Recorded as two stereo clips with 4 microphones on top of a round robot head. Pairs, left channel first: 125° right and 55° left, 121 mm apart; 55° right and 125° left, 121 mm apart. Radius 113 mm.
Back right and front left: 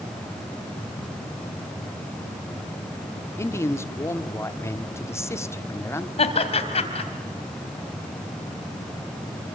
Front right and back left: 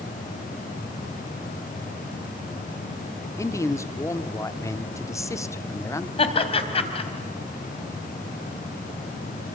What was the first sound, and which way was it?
A man speaking, 85° right.